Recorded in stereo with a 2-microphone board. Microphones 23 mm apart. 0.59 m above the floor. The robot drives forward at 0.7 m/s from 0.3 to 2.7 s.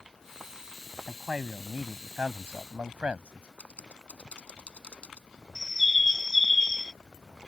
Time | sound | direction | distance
1.1 | a man speaking | 55° right (ahead or behind) | ?
3.6 | typing on a keyboard | 65° left (ahead or behind) | ?
5.5 | a bird | 5° left (ahead or behind) | ?